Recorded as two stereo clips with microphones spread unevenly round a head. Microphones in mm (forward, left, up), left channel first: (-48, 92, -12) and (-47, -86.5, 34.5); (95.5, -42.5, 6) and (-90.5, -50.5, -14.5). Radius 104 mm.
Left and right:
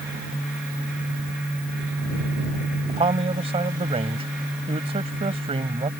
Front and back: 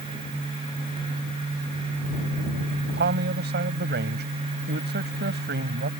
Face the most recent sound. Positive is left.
turn(degrees=-145)